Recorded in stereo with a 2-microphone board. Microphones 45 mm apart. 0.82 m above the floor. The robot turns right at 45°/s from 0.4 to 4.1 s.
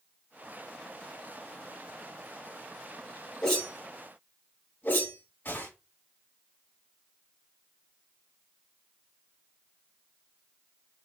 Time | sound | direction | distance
3.4 | a whoosh | 15° left (ahead or behind) | 6 m